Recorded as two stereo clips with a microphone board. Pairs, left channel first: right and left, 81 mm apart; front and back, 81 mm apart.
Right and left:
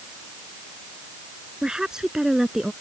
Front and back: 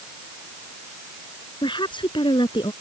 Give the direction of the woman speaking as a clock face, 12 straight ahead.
12 o'clock.